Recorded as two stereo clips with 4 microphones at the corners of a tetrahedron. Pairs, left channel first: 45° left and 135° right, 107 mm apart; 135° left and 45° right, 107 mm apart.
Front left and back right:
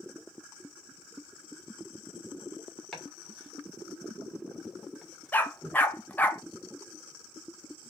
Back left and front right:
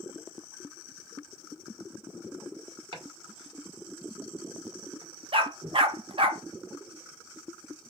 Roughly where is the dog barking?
Ahead right.